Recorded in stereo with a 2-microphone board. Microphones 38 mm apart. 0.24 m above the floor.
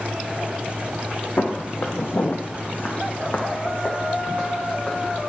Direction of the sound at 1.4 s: 65° left (ahead or behind).